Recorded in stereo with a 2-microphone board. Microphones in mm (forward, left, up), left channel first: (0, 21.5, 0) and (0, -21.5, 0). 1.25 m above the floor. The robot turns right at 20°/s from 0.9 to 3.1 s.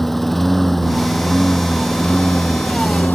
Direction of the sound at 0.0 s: 5° left.